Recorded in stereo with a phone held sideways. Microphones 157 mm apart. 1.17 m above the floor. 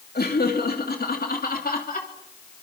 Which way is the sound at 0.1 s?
80° left.